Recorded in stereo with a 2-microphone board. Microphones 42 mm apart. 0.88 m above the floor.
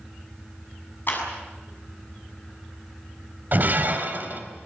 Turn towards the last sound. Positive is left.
turn(degrees=-45)  # may be behind; listen again after turning